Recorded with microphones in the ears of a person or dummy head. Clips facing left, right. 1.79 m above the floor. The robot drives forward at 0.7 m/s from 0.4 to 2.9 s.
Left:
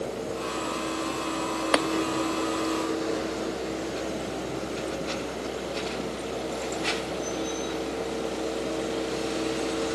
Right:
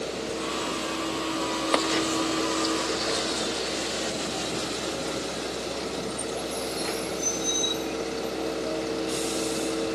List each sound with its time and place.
1.7 s tapping: 5° left (ahead or behind)